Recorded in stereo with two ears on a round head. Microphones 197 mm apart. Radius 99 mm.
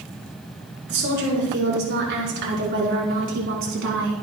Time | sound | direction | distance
0.9 | a woman speaking | 55° right (ahead or behind) | 6.5 m